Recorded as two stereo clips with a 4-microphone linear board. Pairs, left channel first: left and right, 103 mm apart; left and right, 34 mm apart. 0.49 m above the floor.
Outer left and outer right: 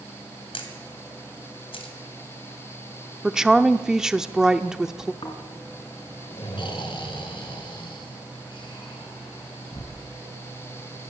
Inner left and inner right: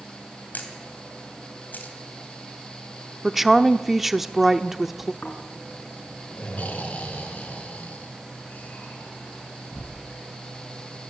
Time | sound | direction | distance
0.5 | a camera shutter | 65° left (ahead or behind) | 3 m
3.2 | a woman speaking | 5° right (ahead or behind) | 0.8 m
5.2 | snoring | 55° left (ahead or behind) | 4 m